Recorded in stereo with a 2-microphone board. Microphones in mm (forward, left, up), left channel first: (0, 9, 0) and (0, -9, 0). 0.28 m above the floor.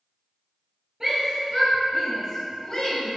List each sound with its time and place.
1.0 s a shout: 20° right (ahead or behind), 1.2 m; by 3.1 s 40° left (ahead or behind), 1.2 m